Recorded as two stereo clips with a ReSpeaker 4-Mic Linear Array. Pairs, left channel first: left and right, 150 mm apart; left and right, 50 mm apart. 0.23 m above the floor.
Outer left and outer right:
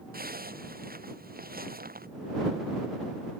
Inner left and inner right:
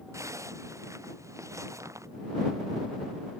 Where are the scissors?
I don't hear scissors.